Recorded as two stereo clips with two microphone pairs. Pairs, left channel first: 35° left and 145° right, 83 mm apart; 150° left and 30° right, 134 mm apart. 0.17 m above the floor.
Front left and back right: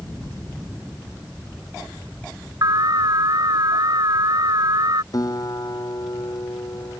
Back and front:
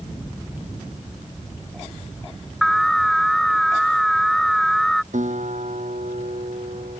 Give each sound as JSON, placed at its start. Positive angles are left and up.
{"t": 2.6, "sound": "an alarm", "azimuth_deg": -120}
{"t": 5.1, "sound": "a guitar", "azimuth_deg": -5}